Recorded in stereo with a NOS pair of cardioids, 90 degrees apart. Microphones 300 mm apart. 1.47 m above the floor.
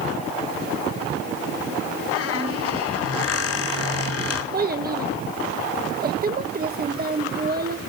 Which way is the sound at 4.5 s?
30° right.